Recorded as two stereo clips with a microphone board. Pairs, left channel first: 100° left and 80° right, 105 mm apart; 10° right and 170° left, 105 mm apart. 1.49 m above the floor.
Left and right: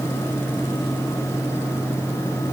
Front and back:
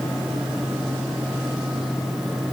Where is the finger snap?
No finger snap in this recording.